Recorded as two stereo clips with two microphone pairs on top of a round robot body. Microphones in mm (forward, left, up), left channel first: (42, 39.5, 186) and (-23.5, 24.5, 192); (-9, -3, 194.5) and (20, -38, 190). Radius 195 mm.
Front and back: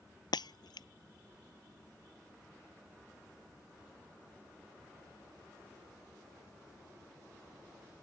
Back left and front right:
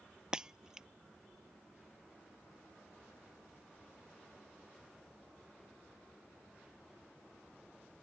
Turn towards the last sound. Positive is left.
turn(degrees=25)